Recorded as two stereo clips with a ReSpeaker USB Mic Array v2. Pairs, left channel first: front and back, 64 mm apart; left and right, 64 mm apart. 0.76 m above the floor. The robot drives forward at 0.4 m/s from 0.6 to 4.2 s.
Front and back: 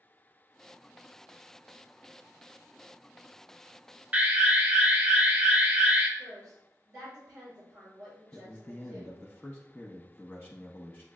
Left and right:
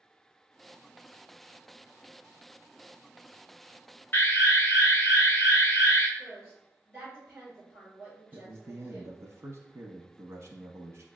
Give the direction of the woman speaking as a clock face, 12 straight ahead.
6 o'clock.